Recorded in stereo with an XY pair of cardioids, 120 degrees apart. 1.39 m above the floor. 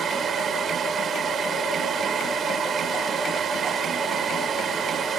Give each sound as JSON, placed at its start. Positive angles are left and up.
{"t": 0.0, "sound": "a fan", "azimuth_deg": -45}